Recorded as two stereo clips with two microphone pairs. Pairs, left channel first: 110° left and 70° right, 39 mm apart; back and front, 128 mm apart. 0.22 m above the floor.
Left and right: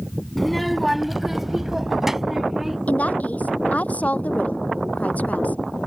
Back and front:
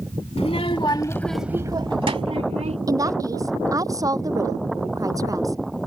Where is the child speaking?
160° right; by 2.8 s 15° left.